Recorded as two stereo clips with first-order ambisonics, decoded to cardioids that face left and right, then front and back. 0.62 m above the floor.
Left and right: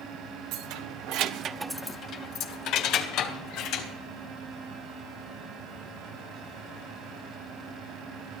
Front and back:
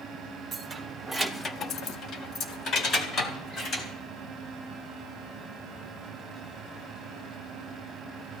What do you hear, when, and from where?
0.5 s keys jangling: 105° right, 1.6 m; by 3.9 s 60° left, 3 m